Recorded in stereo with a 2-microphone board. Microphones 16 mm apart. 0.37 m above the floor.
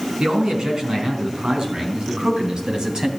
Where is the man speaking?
70° right (ahead or behind), 4 m; by 3.1 s 60° right (ahead or behind), 2.5 m.